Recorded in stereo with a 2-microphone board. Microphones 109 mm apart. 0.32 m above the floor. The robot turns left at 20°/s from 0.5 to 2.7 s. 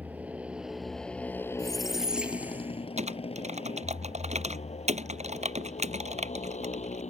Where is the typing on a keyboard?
75° right (ahead or behind).